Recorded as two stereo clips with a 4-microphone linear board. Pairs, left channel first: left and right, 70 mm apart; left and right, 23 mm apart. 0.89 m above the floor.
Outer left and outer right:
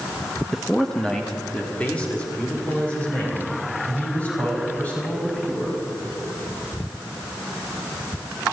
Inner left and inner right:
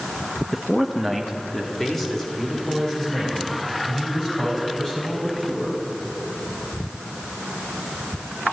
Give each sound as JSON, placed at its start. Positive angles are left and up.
{"t": 0.5, "sound": "a man speaking", "side_deg": -5, "distance_m": 0.7}